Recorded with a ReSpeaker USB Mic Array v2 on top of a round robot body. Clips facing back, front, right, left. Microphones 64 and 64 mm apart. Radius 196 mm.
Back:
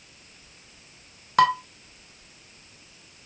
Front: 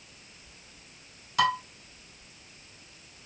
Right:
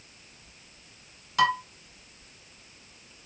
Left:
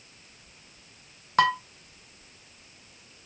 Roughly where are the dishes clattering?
Behind left.